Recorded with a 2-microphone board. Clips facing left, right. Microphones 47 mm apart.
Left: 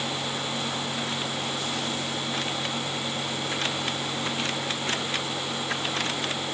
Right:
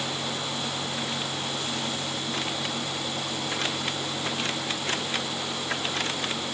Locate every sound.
Only background noise.